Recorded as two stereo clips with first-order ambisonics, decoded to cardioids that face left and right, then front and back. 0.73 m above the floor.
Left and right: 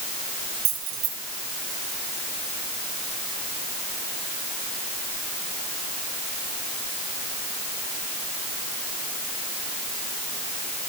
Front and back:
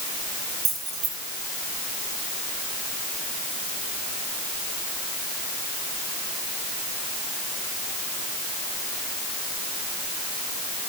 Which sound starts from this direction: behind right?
Keys jangling, at 0.7 s.